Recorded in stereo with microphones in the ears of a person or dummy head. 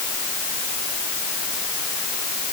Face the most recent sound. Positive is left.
No sound to turn to.